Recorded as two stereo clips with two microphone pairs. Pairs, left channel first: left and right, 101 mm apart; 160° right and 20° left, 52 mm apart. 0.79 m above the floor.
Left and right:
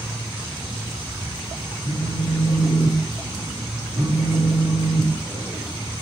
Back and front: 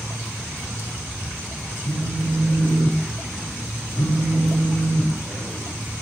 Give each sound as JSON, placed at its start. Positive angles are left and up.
{"t": 1.8, "sound": "a phone buzzing", "azimuth_deg": -140, "distance_m": 1.0}